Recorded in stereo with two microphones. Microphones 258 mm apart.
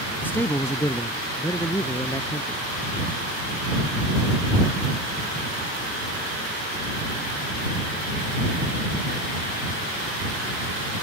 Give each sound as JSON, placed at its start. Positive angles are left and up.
{"t": 0.2, "sound": "a man speaking", "side_deg": 5}